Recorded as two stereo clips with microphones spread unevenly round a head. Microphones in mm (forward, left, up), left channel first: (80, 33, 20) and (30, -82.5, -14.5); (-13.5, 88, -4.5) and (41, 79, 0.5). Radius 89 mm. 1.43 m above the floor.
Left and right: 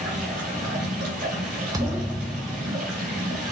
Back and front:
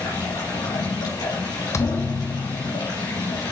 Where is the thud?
170° left, 1.0 m.